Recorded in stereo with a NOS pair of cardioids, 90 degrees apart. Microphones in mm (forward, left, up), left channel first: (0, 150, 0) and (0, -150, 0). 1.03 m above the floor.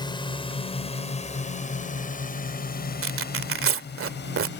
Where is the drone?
15° left; by 4.6 s 35° left.